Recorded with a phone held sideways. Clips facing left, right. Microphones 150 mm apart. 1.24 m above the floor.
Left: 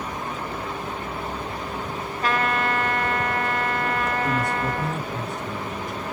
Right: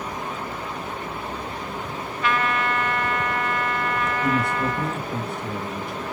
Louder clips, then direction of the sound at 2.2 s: Even; 40° left (ahead or behind).